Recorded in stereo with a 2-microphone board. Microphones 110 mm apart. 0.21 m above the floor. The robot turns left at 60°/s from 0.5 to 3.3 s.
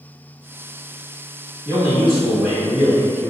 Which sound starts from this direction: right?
A man speaking, at 1.6 s.